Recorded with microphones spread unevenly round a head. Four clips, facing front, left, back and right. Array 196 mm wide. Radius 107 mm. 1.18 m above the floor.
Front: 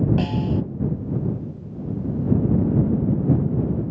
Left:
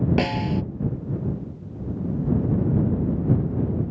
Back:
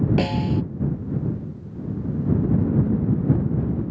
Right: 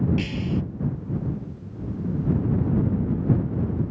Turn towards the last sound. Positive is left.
turn(degrees=145)